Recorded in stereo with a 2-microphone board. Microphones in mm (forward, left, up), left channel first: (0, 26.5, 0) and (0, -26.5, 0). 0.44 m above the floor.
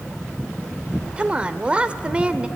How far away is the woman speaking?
About 1.2 m.